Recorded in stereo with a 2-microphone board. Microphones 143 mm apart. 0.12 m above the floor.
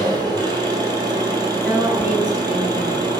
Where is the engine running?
30° right (ahead or behind), 1.2 m.